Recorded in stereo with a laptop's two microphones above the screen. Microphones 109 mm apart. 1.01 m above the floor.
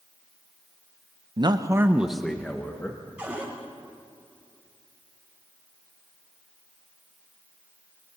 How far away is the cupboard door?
About 5.5 m.